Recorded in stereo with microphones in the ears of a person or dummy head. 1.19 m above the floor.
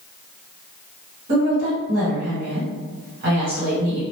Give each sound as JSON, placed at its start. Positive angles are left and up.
{"t": 1.3, "sound": "a woman speaking", "side_deg": -50, "distance_m": 1.4}